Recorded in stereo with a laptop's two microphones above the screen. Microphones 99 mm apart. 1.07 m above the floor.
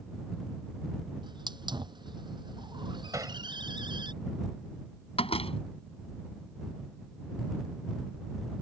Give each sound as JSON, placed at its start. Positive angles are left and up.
{"t": 1.2, "sound": "a hiss", "side_deg": -50}
{"t": 3.1, "sound": "hammering", "side_deg": -35}
{"t": 5.2, "sound": "a door slam", "side_deg": 70}